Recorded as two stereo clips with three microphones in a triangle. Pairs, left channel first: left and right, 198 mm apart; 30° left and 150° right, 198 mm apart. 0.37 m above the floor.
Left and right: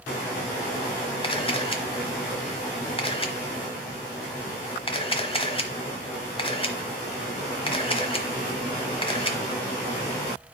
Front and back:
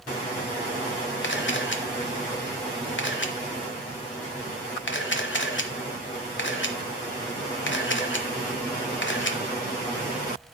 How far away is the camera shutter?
About 1.0 m.